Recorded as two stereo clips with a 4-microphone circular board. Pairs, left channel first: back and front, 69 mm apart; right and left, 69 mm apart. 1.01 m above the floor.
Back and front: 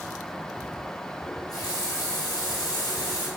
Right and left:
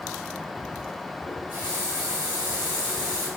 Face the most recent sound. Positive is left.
turn(degrees=150)